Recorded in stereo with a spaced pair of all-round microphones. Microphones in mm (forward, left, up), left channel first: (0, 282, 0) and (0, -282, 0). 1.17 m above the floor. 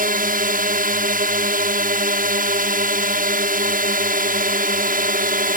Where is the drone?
15° right (ahead or behind).